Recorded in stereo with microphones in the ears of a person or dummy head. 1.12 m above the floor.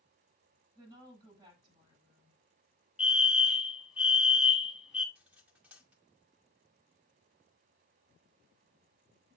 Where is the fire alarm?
5° right (ahead or behind), 1.2 m.